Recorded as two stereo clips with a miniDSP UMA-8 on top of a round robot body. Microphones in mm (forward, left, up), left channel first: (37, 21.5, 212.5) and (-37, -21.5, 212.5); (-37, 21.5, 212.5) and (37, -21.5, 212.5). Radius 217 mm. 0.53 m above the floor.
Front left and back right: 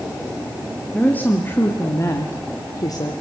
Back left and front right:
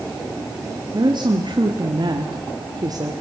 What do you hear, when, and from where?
0.9 s a woman speaking: 40° right, 2.5 m; by 3.1 s straight ahead, 2 m